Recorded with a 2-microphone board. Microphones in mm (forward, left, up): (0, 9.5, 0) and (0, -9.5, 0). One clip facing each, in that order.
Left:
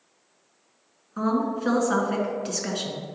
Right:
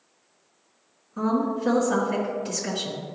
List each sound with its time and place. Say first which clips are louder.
1.2 s a woman speaking: even; 30° left (ahead or behind), 1.7 m